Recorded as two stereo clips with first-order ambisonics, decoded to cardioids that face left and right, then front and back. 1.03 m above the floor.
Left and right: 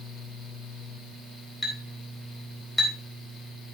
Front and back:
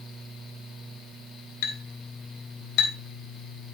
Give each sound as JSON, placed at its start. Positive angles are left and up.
{"t": 1.6, "sound": "a clink", "azimuth_deg": 10, "distance_m": 4.0}